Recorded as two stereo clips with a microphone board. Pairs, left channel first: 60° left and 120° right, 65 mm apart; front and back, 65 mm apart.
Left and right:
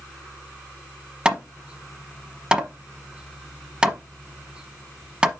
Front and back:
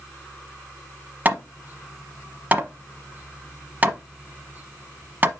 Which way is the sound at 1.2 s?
175° right.